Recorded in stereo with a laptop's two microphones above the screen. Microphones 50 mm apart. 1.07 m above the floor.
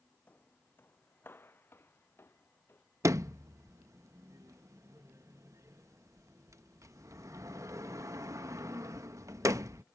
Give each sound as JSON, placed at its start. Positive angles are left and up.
{"t": 0.3, "sound": "footsteps", "side_deg": 35}
{"t": 3.0, "sound": "a sliding door", "side_deg": -70}